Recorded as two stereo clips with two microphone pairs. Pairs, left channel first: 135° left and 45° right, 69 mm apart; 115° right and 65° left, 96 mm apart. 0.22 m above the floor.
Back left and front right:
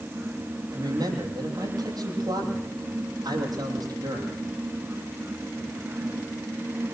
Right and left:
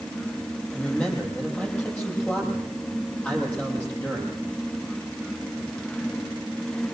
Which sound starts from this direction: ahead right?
A man speaking, at 0.7 s.